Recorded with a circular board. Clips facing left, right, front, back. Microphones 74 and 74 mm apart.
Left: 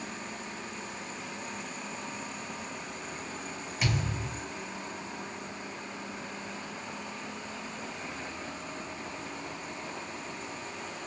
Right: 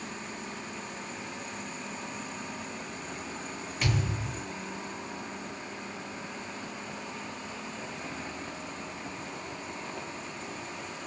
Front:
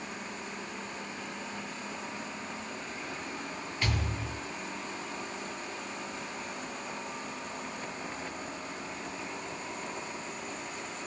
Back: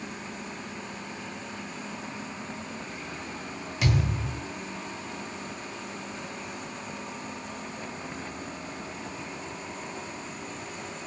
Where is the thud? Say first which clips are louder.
Right 1 dB, back 7 dB; 175° left, 3 m.